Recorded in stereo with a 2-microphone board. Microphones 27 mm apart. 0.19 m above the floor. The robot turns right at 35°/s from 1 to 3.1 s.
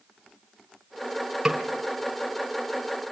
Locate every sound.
1.4 s a snare drum: 20° right (ahead or behind), 2.5 m; by 1.6 s 25° right (ahead or behind), 2.5 m